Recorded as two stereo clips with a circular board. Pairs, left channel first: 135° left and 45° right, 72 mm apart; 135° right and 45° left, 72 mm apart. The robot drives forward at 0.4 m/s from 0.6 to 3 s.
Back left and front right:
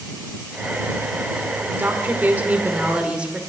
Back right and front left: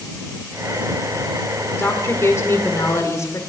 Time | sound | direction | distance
1.7 | a woman speaking | 90° right | 1.6 m